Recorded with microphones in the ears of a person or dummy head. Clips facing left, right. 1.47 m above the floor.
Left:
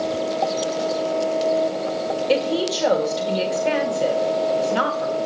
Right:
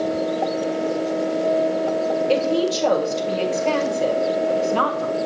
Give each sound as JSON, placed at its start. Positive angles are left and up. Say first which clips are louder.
{"t": 2.3, "sound": "a woman speaking", "louder": "left 1 dB", "side_deg": 10, "distance_m": 1.7}